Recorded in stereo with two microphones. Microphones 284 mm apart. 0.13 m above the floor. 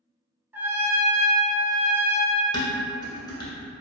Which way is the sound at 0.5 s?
5° right (ahead or behind).